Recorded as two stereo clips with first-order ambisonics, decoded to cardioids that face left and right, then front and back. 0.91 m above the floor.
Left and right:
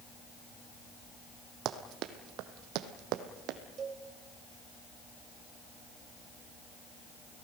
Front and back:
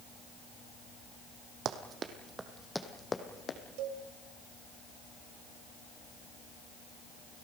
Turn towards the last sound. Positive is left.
turn(degrees=-155)